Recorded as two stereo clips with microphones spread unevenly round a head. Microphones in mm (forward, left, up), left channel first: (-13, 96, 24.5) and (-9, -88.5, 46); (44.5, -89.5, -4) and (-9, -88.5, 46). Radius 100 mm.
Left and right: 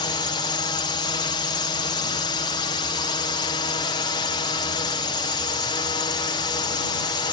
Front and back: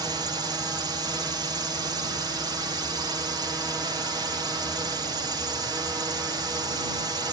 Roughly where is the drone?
Behind left.